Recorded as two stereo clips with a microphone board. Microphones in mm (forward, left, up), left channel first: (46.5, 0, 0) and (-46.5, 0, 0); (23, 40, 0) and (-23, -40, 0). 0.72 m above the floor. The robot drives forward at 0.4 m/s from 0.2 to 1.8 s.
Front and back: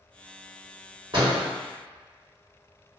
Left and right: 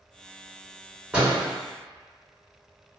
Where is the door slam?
165° left, 1.4 m.